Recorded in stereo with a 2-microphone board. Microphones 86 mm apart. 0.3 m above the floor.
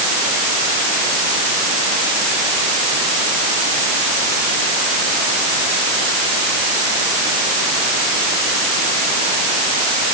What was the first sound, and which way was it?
Only background noise.